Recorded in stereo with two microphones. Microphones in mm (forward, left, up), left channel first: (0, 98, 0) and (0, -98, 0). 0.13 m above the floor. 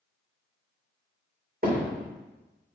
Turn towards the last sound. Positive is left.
turn(degrees=-50)  # may be behind; listen again after turning